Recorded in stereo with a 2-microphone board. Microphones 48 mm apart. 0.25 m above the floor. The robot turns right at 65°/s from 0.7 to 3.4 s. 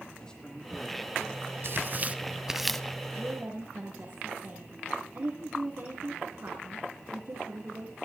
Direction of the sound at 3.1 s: 70° right (ahead or behind).